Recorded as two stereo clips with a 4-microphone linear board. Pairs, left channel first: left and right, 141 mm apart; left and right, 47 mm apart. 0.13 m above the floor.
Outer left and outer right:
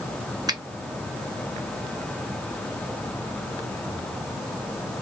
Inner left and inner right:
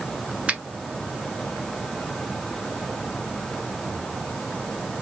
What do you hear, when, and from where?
0.5 s a finger snap: 30° right (ahead or behind), 1.0 m